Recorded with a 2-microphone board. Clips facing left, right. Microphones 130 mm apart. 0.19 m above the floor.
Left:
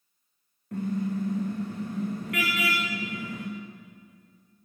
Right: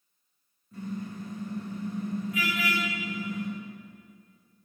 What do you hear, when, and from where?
0.7 s a car horn: 75° left (ahead or behind), 7 m